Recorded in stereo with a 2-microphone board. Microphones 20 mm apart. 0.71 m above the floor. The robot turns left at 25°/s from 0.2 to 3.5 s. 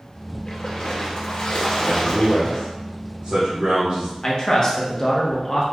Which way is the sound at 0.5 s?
130° left.